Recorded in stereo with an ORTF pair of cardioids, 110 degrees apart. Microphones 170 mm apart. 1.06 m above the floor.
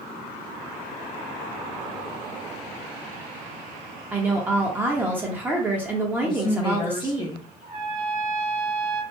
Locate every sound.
4.1 s a woman speaking: 10° right, 1.0 m
6.2 s a woman speaking: 30° left, 0.9 m
7.6 s a trumpet: 60° right, 1.4 m